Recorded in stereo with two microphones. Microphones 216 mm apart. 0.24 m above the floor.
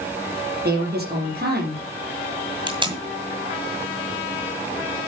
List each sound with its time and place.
0.7 s a woman speaking: 50° right (ahead or behind), 5.5 m
2.7 s tape being pulled: 20° right (ahead or behind), 2 m